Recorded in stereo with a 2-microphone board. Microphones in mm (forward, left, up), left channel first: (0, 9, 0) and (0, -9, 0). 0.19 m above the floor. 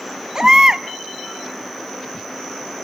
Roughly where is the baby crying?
Right.